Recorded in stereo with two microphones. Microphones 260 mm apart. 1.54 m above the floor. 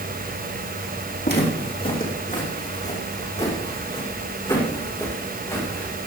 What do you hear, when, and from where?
1.2 s footsteps: 40° left (ahead or behind), 5 m; by 5.9 s 10° left (ahead or behind), 7 m